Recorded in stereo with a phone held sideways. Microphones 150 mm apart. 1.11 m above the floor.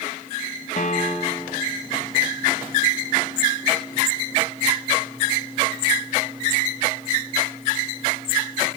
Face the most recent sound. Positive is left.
turn(degrees=55)  # may be behind; listen again after turning